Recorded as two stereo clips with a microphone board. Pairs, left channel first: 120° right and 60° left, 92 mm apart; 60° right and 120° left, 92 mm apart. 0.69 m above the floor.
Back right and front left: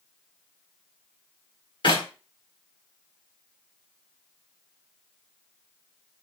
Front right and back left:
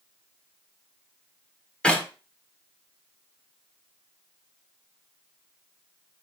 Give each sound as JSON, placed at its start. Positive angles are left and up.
{"t": 1.8, "sound": "a clap", "azimuth_deg": -140, "distance_m": 1.5}